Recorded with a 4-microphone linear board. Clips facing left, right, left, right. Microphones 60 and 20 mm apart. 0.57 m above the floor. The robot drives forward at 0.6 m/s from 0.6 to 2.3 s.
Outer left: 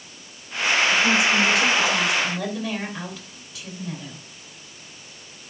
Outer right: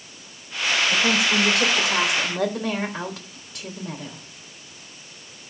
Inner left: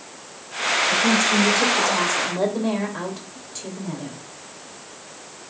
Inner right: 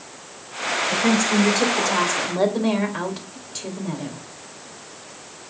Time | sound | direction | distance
0.9 | a woman speaking | 50° right (ahead or behind) | 2.5 m